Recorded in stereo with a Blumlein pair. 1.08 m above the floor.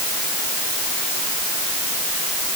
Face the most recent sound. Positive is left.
No sound to turn to.